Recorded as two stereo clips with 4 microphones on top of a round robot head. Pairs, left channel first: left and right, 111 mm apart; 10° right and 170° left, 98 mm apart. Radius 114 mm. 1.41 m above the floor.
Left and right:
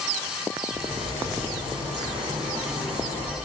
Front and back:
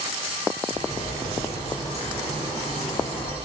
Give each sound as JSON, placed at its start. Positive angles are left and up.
{"t": 0.7, "sound": "a bird", "azimuth_deg": -40, "distance_m": 4.0}